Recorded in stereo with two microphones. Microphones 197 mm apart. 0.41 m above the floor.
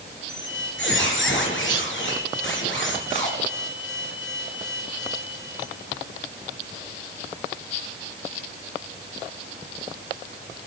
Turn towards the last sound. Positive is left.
turn(degrees=75)  # may be behind; listen again after turning